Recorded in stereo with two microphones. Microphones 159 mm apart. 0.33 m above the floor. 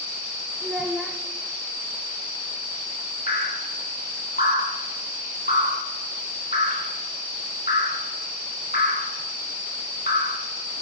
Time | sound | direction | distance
0.6 | a child speaking | 5° right (ahead or behind) | 0.6 m
3.3 | dripping | 90° left | 2 m